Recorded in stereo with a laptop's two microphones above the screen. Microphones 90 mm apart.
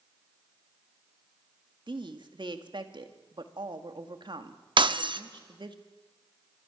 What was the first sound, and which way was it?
A woman speaking, 60° right (ahead or behind).